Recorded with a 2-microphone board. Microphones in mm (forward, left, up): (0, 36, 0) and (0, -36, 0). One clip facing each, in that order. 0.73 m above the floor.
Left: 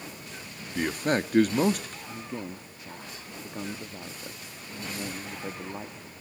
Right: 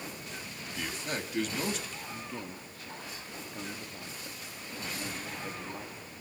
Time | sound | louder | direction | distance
0.8 | a man speaking | left 10 dB | 50° left (ahead or behind) | 0.9 m
2.1 | a man speaking | left 4 dB | 20° left (ahead or behind) | 0.9 m